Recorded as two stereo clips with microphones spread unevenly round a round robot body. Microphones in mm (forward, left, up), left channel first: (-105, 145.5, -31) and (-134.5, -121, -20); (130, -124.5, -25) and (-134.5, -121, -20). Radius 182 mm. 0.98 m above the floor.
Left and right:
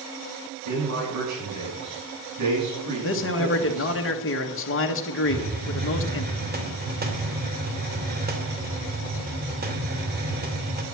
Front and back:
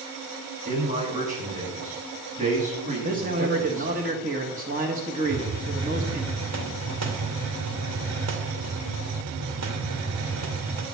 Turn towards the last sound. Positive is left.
turn(degrees=-155)